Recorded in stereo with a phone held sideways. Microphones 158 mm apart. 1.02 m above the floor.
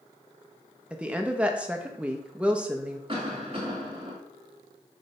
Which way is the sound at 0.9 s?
10° right (ahead or behind).